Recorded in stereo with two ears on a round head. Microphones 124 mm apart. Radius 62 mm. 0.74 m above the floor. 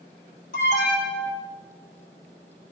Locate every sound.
0.5 s an alarm: 65° left (ahead or behind), 4.5 m